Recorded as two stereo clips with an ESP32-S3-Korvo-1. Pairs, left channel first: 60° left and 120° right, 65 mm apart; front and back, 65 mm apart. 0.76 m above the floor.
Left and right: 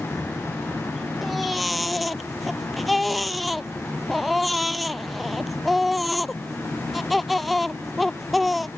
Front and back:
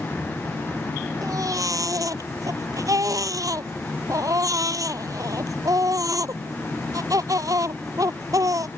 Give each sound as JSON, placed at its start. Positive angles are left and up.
{"t": 1.2, "sound": "a baby crying", "azimuth_deg": 150}